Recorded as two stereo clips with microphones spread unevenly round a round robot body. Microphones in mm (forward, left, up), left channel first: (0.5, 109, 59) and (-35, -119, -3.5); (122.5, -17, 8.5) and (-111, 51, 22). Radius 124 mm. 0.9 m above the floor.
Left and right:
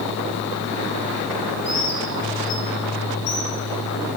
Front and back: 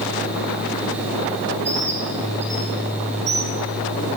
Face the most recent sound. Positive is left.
turn(degrees=100)